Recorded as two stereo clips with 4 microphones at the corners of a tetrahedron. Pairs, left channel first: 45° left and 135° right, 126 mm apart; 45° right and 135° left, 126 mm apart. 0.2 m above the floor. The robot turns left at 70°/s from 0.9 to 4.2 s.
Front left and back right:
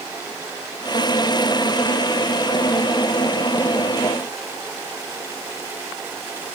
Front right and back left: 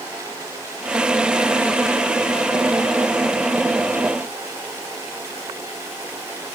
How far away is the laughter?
I don't hear laughter.